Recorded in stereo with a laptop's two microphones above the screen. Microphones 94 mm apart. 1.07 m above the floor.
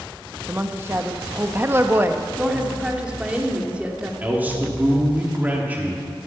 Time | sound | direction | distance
0.5 | a woman speaking | 25° right (ahead or behind) | 1.1 m
2.4 | a woman speaking | 15° right (ahead or behind) | 2 m
4.2 | a man speaking | 20° right (ahead or behind) | 1.9 m